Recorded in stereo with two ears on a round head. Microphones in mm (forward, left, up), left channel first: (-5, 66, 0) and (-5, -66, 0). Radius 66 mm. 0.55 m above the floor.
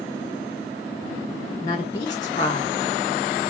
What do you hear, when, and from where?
1.6 s a woman speaking: 30° left (ahead or behind), 1.9 m; by 2.8 s 25° left (ahead or behind), 2.5 m